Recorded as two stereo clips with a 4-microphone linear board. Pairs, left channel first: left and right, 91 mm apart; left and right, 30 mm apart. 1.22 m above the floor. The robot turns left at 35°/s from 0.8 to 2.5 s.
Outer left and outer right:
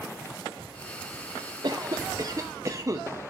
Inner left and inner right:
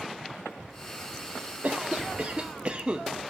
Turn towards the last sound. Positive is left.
turn(degrees=-135)